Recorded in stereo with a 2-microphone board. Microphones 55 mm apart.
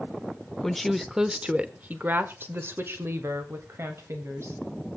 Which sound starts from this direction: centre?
A woman speaking, at 0.6 s.